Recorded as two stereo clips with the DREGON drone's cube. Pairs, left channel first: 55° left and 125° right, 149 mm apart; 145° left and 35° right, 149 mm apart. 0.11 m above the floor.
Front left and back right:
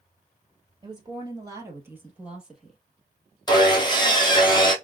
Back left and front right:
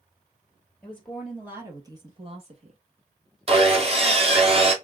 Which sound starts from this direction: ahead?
Sawing, at 3.5 s.